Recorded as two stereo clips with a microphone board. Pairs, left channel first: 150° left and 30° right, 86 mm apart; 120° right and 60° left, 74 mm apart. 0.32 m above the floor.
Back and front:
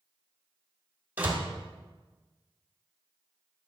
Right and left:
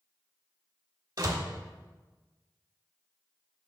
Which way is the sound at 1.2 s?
40° left.